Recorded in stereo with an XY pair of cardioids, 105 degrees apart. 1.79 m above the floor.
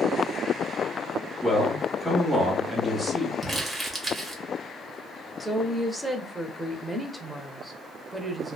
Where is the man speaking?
Straight ahead, 1.2 m.